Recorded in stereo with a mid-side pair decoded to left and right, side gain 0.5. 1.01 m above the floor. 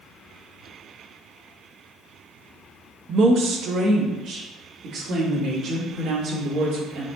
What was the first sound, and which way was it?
A woman speaking, 50° right.